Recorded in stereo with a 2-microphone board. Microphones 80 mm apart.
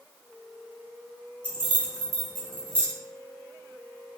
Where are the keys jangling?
20° left (ahead or behind), 1.3 m.